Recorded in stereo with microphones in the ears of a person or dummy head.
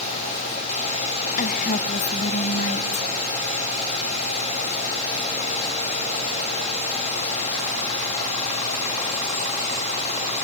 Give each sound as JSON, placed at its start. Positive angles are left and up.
{"t": 1.4, "sound": "a woman speaking", "side_deg": 40, "distance_m": 1.8}